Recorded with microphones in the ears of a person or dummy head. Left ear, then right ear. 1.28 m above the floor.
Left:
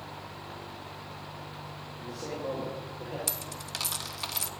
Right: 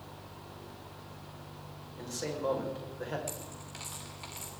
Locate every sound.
0.0 s a fan: 50° left (ahead or behind), 0.8 m
2.0 s a man speaking: 60° right (ahead or behind), 5.5 m
3.3 s a dropped coin: 45° left (ahead or behind), 1.0 m